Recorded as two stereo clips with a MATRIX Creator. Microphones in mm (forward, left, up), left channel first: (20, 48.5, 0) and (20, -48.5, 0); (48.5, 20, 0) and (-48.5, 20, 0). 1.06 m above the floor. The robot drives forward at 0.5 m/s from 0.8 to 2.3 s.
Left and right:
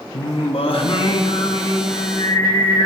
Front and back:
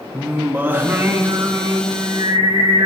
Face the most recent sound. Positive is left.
turn(degrees=140)